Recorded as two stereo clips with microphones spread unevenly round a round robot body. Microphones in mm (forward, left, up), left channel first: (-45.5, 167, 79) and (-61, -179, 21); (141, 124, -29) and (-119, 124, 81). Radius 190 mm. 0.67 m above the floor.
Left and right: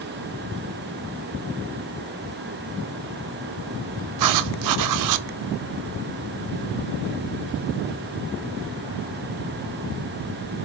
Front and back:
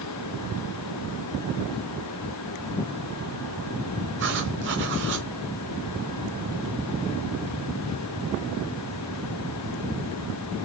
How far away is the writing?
About 0.7 m.